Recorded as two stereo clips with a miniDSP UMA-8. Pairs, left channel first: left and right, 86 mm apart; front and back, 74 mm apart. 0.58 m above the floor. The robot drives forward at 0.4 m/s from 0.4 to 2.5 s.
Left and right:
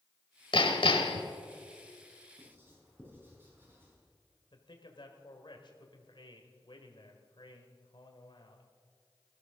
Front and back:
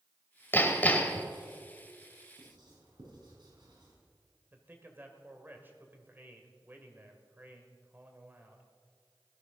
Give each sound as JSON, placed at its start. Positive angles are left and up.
{"t": 0.5, "sound": "hammering", "azimuth_deg": 65, "distance_m": 1.4}
{"t": 2.4, "sound": "writing", "azimuth_deg": -155, "distance_m": 5.5}
{"t": 4.5, "sound": "a man speaking", "azimuth_deg": 115, "distance_m": 1.8}